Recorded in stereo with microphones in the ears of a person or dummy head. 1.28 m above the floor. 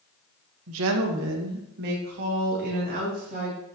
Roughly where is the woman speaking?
Right.